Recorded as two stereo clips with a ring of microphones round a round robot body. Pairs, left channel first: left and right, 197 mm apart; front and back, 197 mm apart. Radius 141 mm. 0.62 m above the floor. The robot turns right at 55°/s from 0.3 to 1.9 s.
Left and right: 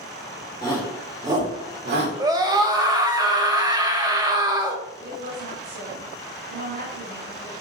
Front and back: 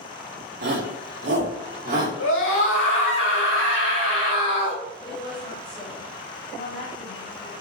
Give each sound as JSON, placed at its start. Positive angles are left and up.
{"t": 0.6, "sound": "a shout", "azimuth_deg": 160, "distance_m": 2.0}
{"t": 2.2, "sound": "a scream", "azimuth_deg": -20, "distance_m": 2.5}
{"t": 5.0, "sound": "a woman speaking", "azimuth_deg": -60, "distance_m": 3.0}